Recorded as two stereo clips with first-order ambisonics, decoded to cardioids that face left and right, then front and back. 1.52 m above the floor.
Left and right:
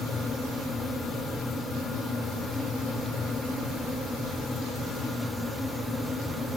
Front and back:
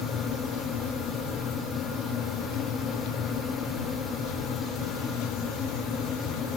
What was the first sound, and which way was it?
Only background noise.